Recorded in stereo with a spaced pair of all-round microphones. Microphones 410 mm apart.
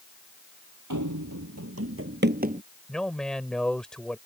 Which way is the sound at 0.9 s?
50° right (ahead or behind).